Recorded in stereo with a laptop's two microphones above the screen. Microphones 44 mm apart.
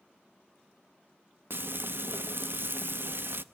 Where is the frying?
55° right (ahead or behind), 0.7 m.